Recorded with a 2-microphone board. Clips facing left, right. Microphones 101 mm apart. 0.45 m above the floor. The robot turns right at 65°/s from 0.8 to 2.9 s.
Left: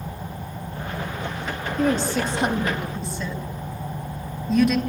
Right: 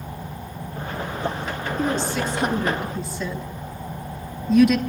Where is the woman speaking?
60° left (ahead or behind), 4 m; by 4.8 s 5° right (ahead or behind), 4 m.